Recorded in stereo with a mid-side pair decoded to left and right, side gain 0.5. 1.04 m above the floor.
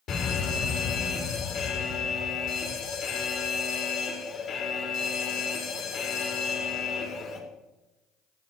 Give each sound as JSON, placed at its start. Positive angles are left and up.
{"t": 0.1, "sound": "a fire alarm", "azimuth_deg": 65, "distance_m": 3.5}